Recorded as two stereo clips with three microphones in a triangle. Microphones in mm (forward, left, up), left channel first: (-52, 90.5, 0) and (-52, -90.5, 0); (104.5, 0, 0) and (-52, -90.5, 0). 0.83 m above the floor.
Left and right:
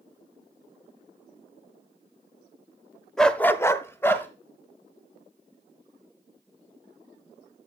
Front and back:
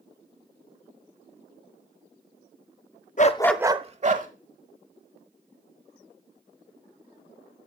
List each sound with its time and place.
3.2 s a dog barking: straight ahead, 0.7 m; by 4.3 s 170° left, 1.3 m